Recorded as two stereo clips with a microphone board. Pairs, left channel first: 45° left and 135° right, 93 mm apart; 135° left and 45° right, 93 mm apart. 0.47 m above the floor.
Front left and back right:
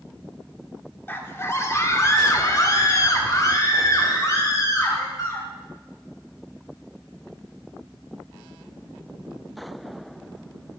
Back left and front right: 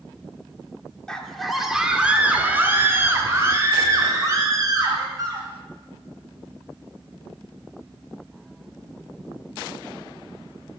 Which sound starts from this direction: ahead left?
A scream, at 1.1 s.